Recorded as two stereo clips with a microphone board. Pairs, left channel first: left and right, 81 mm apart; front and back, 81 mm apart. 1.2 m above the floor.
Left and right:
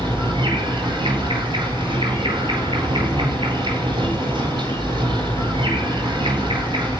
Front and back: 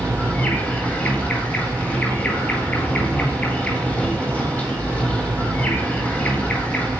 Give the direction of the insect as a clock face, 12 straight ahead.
2 o'clock.